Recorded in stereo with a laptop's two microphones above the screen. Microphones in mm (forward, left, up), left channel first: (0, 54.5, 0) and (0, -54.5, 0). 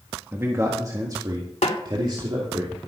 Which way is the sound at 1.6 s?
80° left.